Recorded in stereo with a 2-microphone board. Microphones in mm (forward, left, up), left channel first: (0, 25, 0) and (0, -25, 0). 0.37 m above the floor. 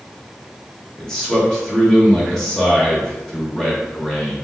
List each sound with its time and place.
1.0 s a man speaking: 15° left (ahead or behind), 1.2 m